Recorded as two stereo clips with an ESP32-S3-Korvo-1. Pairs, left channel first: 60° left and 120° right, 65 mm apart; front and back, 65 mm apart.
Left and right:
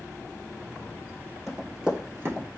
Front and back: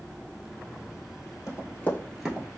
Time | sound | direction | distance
1.5 | running footsteps | 30° right | 1.4 m